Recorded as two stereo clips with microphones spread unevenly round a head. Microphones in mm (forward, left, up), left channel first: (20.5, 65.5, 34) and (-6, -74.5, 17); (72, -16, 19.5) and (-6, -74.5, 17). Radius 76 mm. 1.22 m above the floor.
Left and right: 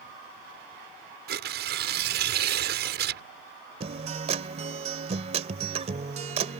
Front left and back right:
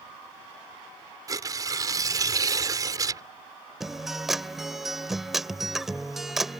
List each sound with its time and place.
1.3 s tearing paper: 90° right
3.8 s a guitar: 55° right